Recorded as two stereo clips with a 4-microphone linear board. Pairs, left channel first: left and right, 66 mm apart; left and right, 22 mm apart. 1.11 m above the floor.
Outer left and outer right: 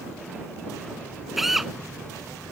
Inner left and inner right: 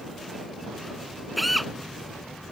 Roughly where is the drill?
Centre.